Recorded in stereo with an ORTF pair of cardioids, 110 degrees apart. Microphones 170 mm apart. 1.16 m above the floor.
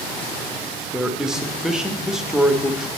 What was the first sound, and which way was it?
A man speaking, 5° right.